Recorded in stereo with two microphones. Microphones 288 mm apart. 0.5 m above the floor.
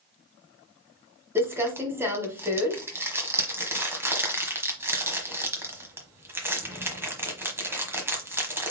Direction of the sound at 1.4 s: 10° right (ahead or behind).